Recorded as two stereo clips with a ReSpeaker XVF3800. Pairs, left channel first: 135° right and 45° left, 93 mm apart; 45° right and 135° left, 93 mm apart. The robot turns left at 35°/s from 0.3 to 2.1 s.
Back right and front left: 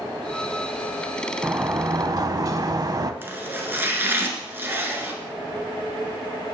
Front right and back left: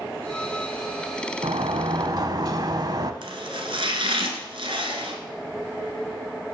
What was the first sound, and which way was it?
A sliding door, 115° left.